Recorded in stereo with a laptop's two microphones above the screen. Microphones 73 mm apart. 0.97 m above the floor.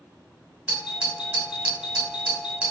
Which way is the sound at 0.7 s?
15° right (ahead or behind).